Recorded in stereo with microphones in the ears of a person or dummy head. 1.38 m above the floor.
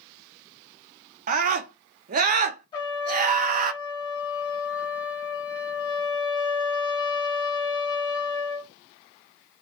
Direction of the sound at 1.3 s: 50° right (ahead or behind).